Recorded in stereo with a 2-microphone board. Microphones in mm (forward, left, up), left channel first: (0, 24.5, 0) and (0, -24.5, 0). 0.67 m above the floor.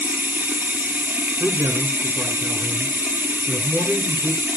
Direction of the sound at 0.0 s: 45° right (ahead or behind).